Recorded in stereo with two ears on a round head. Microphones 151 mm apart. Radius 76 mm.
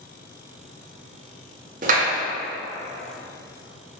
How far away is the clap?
About 1.5 m.